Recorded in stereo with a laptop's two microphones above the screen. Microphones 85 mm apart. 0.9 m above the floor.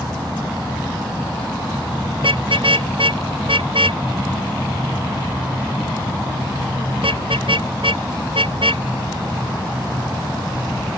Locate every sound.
2.2 s a car horn: 85° right